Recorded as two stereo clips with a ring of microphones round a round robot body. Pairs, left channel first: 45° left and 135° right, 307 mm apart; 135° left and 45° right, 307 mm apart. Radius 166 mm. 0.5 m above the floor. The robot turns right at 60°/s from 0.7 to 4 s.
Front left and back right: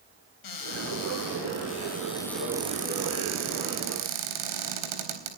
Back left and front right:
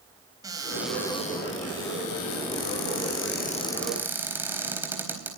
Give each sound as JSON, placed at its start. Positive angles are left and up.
{"t": 0.4, "sound": "a cupboard door", "azimuth_deg": 35, "distance_m": 4.0}